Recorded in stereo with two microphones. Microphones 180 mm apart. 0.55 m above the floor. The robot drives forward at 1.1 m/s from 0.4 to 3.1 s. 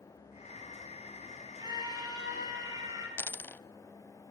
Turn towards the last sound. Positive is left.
turn(degrees=10)  # may be behind; listen again after turning